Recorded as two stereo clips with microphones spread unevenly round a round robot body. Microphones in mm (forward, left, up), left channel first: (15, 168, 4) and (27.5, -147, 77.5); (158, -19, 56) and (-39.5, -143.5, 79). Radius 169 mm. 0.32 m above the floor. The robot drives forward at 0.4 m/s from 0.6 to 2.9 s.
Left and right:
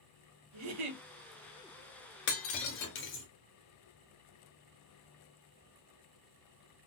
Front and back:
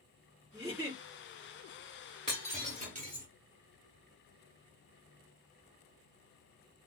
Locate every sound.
0.5 s a giggle: 70° right, 3.5 m
2.3 s breaking glass: 140° left, 1.4 m; by 3.2 s 145° left, 1.6 m